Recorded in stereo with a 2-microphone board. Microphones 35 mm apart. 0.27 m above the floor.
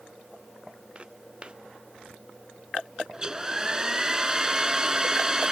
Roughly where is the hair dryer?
Right.